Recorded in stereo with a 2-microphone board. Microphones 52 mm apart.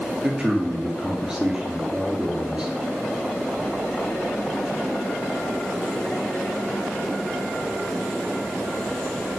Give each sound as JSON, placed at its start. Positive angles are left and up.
{"t": 0.2, "sound": "a man speaking", "side_deg": -15, "distance_m": 2.0}